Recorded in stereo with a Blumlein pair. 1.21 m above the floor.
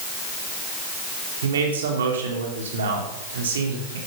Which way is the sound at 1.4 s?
65° right.